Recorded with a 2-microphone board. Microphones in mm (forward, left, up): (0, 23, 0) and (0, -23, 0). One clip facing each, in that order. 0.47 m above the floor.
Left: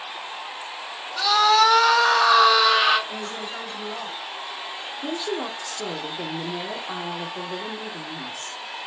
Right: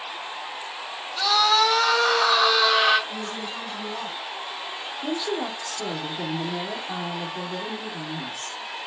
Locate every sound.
1.2 s a scream: 55° left (ahead or behind), 2.5 m
3.1 s a woman speaking: 55° left (ahead or behind), 2.5 m
5.0 s a woman speaking: 25° left (ahead or behind), 0.7 m